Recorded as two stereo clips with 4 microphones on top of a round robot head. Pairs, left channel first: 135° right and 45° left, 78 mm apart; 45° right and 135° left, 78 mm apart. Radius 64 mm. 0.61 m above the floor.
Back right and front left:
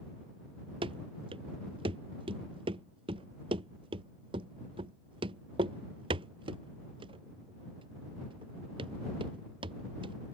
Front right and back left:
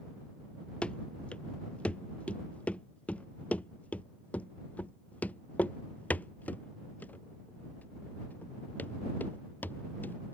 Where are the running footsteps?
35° left; by 10.1 s 25° left.